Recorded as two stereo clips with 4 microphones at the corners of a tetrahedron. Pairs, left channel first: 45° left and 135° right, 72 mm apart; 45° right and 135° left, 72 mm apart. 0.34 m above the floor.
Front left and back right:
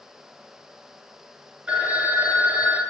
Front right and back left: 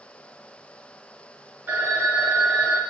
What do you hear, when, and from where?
1.7 s a phone ringing: 160° left, 0.5 m